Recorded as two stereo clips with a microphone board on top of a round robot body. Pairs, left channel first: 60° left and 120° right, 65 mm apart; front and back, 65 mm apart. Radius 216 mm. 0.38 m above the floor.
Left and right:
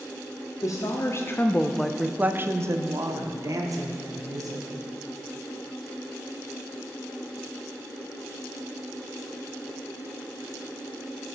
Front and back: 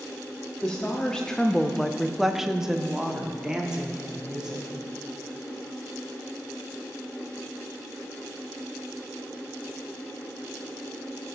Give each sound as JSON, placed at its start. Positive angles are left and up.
{"t": 0.6, "sound": "a woman speaking", "azimuth_deg": 75, "distance_m": 1.3}